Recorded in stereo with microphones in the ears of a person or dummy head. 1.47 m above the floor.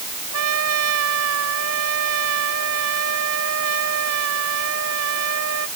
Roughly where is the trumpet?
Right.